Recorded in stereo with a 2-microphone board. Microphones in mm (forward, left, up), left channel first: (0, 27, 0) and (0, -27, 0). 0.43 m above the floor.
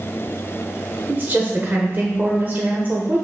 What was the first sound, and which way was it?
A woman speaking, 35° right (ahead or behind).